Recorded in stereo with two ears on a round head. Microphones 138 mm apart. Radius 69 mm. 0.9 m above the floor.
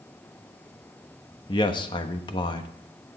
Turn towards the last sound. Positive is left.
turn(degrees=30)  # may be behind; listen again after turning